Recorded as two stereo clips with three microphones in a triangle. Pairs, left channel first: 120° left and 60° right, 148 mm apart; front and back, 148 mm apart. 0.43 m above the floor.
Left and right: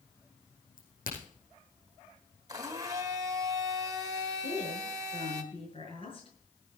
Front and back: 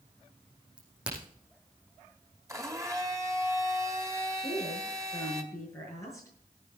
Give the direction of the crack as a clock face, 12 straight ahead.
9 o'clock.